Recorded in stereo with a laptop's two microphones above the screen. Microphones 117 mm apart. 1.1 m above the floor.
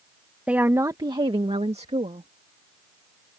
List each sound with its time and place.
0.5 s a woman speaking: 10° right (ahead or behind); by 2.3 s 70° right (ahead or behind)